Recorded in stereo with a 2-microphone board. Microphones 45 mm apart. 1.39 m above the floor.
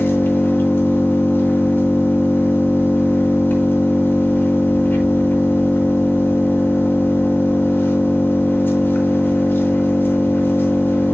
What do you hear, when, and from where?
0.0 s an engine running: 45° left (ahead or behind), 4 m